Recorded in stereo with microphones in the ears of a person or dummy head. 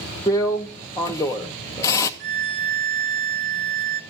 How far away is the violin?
About 2 m.